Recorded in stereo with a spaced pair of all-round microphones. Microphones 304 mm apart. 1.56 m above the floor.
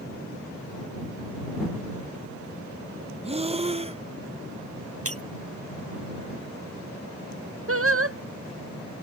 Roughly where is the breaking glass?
Right.